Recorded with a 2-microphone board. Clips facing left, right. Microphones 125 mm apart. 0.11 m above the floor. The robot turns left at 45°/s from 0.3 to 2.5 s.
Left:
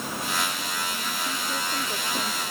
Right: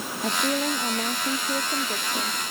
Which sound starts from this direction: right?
A woman speaking, at 0.2 s.